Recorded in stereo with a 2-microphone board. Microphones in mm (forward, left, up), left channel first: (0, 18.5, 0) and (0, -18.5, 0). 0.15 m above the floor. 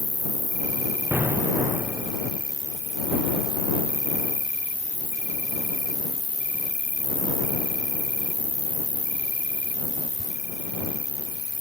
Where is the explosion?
75° right (ahead or behind).